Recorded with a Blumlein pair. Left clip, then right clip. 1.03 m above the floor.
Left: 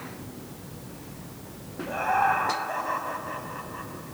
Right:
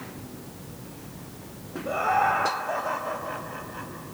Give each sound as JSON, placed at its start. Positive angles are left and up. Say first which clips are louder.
{"t": 1.9, "sound": "laughter", "louder": "right 1 dB", "azimuth_deg": -45, "distance_m": 6.0}